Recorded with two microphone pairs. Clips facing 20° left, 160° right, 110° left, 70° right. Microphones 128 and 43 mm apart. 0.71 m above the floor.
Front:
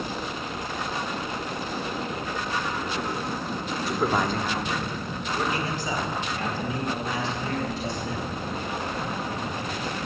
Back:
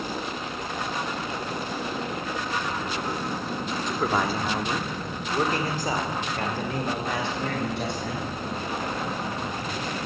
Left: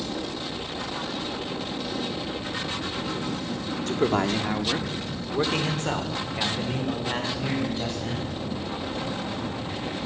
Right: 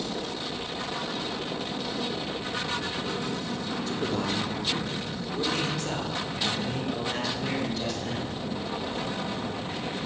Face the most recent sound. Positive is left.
turn(degrees=180)